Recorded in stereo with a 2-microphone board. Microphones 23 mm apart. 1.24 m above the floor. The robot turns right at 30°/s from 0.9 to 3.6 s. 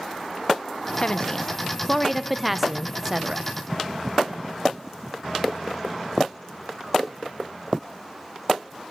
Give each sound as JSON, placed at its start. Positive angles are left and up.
{"t": 1.0, "sound": "a woman speaking", "azimuth_deg": 140, "distance_m": 0.8}